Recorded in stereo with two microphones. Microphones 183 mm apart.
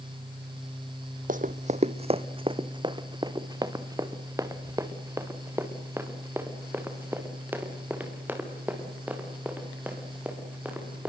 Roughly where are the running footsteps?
Right.